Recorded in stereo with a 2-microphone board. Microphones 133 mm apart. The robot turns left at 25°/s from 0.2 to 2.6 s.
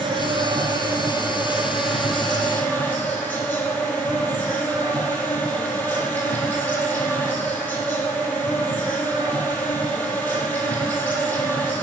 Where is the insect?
135° right, 2.5 m; by 11.8 s 165° left, 2.5 m.